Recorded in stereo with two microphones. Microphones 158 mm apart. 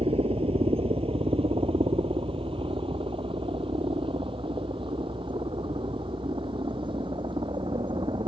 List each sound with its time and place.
0.0 s a helicopter: 35° right (ahead or behind); by 8.3 s 30° right (ahead or behind)